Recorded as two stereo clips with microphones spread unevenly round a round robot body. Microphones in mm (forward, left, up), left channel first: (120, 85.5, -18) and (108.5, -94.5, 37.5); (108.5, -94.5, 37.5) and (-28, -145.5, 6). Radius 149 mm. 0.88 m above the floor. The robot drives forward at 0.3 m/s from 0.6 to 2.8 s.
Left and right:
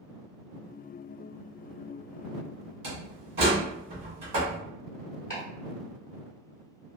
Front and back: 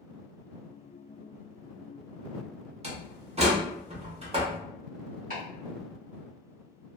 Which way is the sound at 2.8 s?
110° right.